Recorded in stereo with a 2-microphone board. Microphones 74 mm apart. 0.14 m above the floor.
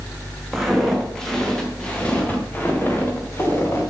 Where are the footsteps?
Centre (ahead or behind), 3.5 m; by 3.8 s 35° left (ahead or behind), 3.5 m.